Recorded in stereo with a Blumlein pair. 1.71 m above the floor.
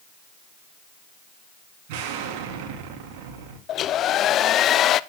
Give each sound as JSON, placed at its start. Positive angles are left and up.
{"t": 1.9, "sound": "an explosion", "azimuth_deg": -45, "distance_m": 3.0}
{"t": 3.7, "sound": "a hair dryer", "azimuth_deg": 30, "distance_m": 0.6}